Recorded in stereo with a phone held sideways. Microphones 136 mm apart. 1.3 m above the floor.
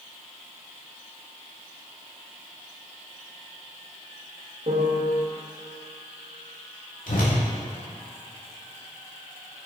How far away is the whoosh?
About 3 m.